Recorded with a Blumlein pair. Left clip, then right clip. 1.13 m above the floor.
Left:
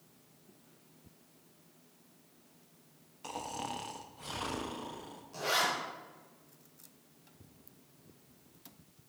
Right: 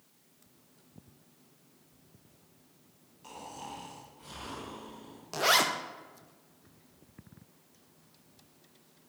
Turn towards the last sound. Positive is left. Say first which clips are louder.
# right 6 dB
turn(degrees=-40)